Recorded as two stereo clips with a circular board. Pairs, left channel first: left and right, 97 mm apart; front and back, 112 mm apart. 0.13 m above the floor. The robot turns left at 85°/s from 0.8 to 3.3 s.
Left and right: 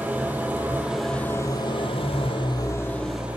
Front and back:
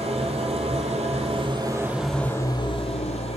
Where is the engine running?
160° right, 1.4 m; by 3.4 s 15° right, 1.4 m.